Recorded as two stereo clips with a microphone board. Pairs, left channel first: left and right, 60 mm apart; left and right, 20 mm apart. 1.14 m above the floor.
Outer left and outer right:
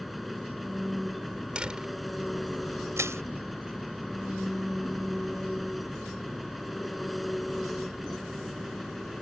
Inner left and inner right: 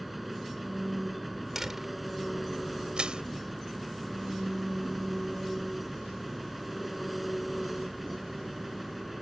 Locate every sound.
0.0 s an engine running: centre (ahead or behind)
1.6 s a door slam: 15° right (ahead or behind)
3.0 s crushing: 50° right (ahead or behind)